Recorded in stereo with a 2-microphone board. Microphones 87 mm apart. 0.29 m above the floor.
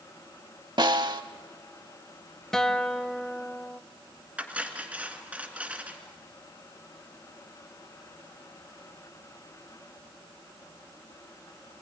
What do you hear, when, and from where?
0.8 s a snare drum: 60° right (ahead or behind), 0.7 m
2.5 s a guitar: 5° left (ahead or behind), 0.6 m
4.4 s cutlery clinking: 15° right (ahead or behind), 1.9 m